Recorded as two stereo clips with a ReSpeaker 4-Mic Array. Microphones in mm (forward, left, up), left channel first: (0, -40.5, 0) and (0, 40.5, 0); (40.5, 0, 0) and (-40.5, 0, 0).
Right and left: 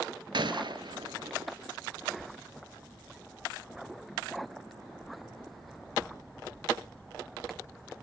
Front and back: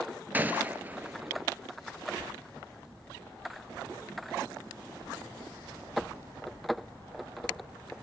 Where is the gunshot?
110° left, 0.7 m.